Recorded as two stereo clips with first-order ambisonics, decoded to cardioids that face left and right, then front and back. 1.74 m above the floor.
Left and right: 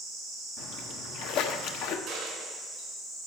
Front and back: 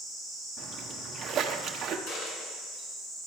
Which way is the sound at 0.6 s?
120° left.